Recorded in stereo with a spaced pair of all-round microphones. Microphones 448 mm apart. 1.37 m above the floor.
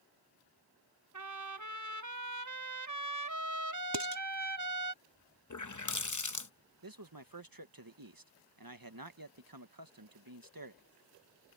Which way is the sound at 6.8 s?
50° right (ahead or behind).